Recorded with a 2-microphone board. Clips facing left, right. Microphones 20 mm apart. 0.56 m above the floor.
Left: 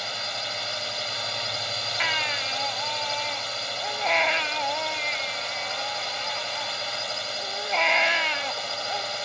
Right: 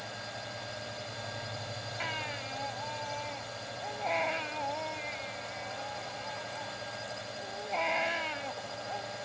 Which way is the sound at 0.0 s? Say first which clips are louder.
Left 11 dB; 55° left (ahead or behind).